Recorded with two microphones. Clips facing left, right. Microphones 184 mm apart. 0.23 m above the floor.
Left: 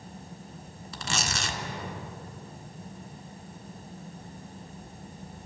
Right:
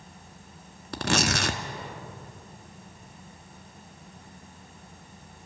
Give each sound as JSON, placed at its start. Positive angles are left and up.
{"t": 0.9, "sound": "tearing paper", "side_deg": -75, "distance_m": 0.9}